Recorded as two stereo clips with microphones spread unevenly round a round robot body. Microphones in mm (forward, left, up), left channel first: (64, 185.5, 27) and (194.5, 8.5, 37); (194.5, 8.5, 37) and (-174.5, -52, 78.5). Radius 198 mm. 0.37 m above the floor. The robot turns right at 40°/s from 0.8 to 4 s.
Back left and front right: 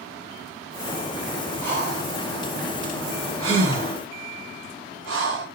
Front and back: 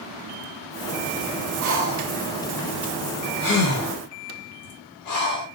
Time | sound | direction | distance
1.6 | breathing | 120° right | 1.0 m